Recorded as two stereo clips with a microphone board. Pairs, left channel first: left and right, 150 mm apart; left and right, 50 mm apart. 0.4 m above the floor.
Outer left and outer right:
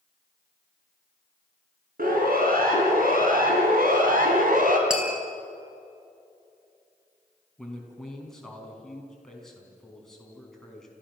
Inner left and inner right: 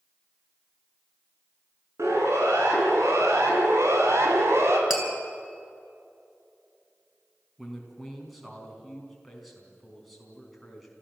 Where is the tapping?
5° right (ahead or behind), 4 m.